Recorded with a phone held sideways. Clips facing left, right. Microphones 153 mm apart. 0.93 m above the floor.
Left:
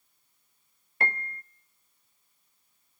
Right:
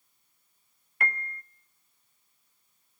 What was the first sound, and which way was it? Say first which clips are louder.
A piano: left 1 dB; 30° left (ahead or behind).